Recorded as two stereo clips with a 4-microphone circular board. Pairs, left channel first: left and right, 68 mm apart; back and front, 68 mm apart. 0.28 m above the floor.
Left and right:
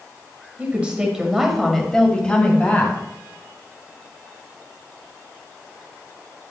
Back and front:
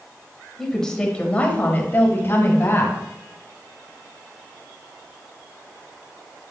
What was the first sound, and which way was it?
A woman speaking, 100° right.